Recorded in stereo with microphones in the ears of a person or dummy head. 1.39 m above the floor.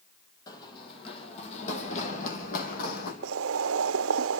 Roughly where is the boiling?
Right.